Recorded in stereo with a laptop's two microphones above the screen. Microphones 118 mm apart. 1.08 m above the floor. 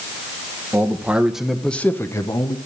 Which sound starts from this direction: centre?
A man speaking, at 0.7 s.